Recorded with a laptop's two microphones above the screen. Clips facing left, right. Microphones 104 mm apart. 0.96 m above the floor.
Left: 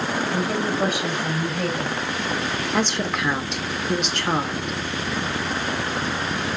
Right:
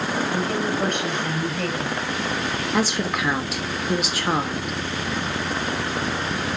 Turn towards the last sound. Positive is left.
turn(degrees=-5)  # may be behind; listen again after turning